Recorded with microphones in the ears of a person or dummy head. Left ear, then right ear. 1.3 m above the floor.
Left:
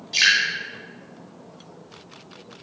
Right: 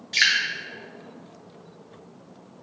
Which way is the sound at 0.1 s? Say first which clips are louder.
Left 2 dB; 20° right (ahead or behind).